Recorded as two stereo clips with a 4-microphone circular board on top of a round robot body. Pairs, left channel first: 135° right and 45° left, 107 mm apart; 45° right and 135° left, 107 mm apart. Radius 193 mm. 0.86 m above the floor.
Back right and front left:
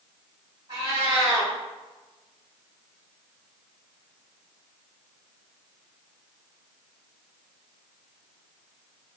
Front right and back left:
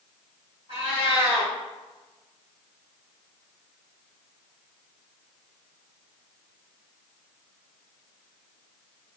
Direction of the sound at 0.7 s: 85° left.